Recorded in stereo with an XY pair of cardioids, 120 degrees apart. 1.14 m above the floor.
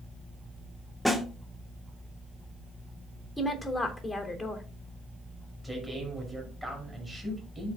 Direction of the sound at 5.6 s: Straight ahead.